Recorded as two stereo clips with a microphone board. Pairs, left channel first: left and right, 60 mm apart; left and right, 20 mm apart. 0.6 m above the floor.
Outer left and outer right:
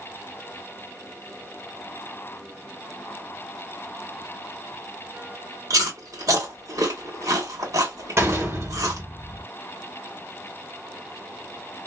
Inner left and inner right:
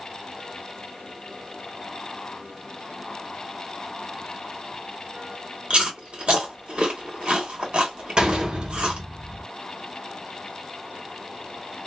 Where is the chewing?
75° right (ahead or behind), 1.3 m.